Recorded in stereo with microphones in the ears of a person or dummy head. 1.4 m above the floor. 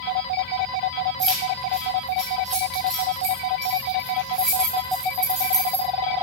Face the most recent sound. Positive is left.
turn(degrees=-5)  # may be behind; listen again after turning